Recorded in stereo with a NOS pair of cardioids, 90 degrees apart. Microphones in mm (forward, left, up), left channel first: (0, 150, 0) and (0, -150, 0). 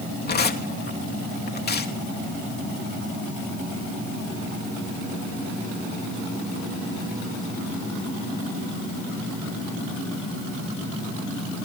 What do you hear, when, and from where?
0.3 s tearing paper: 35° left, 3 m